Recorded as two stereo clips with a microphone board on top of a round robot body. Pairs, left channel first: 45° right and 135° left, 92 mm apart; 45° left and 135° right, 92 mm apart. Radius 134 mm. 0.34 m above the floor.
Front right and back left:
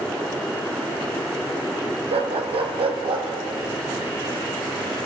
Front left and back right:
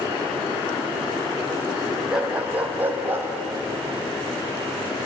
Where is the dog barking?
145° left, 2 m; by 3.3 s 155° left, 3 m.